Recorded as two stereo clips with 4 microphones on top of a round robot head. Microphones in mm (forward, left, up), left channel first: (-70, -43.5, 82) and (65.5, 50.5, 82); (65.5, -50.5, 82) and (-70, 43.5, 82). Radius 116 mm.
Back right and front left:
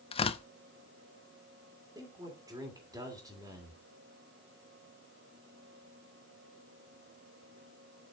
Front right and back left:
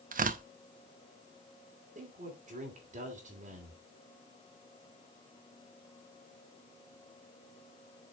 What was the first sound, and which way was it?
Tearing paper, 165° left.